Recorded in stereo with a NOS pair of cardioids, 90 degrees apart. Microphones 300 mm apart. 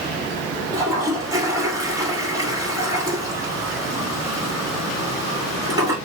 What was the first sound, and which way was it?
A toilet flushing, 10° right.